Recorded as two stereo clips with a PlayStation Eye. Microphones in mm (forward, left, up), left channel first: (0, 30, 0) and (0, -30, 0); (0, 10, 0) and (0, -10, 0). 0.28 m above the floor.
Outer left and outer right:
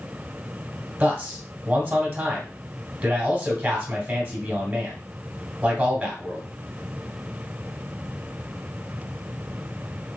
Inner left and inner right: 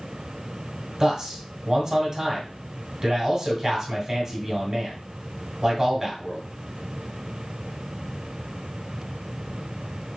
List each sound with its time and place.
1.0 s a man speaking: 20° right (ahead or behind), 1.7 m